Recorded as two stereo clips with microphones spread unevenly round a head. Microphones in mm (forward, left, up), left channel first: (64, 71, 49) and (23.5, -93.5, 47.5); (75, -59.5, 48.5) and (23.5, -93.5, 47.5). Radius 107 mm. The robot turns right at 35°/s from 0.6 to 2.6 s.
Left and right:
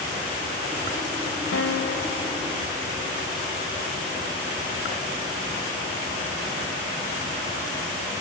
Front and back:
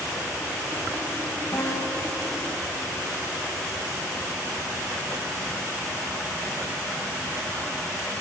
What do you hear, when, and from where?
1.5 s a guitar: 100° left, 2.5 m; by 2.8 s 135° left, 2.5 m